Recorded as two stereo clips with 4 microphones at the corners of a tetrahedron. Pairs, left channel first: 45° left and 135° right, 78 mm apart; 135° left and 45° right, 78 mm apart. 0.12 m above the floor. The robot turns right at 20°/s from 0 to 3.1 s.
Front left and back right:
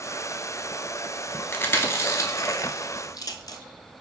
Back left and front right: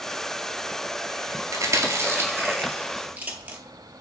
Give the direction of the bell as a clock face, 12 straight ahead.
No bell in this recording.